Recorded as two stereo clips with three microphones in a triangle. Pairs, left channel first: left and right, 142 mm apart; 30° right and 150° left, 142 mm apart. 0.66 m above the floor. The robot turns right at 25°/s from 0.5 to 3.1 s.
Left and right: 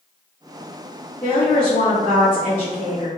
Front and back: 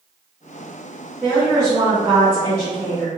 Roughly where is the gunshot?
I don't hear a gunshot.